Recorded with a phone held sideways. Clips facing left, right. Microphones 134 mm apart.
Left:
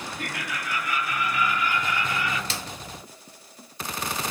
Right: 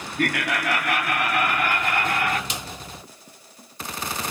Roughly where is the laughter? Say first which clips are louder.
Right 13 dB; right.